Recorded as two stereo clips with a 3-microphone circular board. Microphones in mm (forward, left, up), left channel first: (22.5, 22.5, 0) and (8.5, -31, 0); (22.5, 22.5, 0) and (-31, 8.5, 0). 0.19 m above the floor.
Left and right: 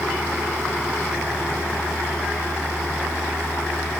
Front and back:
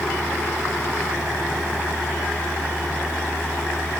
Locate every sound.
Only background noise.